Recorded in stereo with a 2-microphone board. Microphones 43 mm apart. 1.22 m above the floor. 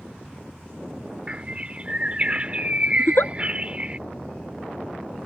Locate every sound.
1.3 s a bird: 30° right (ahead or behind)
3.0 s a giggle: 70° left (ahead or behind)